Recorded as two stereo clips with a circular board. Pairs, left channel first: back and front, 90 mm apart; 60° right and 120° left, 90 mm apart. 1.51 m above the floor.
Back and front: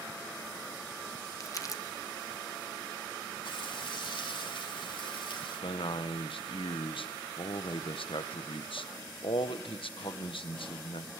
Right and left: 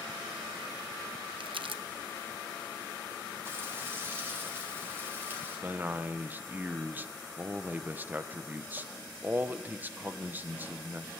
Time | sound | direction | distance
1.4 | crumpling | 130° left | 0.8 m
3.5 | frying | straight behind | 4.5 m
5.6 | a man speaking | 170° right | 1.0 m